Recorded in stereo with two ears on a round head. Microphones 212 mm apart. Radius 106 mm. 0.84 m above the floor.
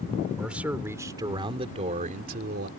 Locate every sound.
0.4 s a man speaking: 5° right (ahead or behind); by 2.7 s 45° right (ahead or behind)